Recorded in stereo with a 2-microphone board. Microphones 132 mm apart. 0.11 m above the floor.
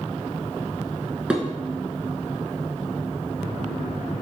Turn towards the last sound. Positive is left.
turn(degrees=-5)  # may be behind; listen again after turning